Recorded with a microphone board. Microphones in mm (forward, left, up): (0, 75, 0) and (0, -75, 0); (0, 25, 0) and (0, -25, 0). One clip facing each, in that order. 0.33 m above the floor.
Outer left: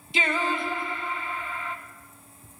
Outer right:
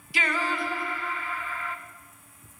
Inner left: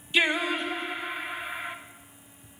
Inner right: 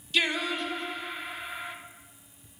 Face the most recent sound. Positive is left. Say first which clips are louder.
# outer left 2 dB, inner left 3 dB
turn(degrees=25)  # may be behind; listen again after turning